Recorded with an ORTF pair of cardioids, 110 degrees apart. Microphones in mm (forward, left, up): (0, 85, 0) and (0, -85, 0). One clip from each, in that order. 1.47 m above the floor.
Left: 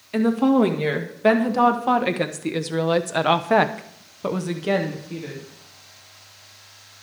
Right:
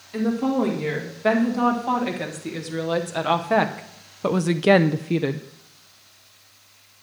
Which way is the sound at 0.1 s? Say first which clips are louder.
Left 4 dB; 45° left.